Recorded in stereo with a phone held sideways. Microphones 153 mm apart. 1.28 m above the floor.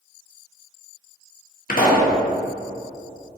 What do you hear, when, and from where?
1.7 s a pop: 70° left (ahead or behind), 1.4 m